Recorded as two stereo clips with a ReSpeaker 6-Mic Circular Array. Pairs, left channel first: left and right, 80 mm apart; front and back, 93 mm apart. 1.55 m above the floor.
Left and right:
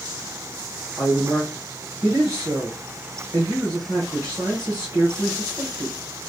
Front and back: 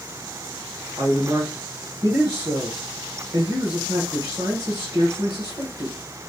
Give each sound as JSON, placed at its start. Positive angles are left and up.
{"t": 1.0, "sound": "a man speaking", "azimuth_deg": -135, "distance_m": 1.3}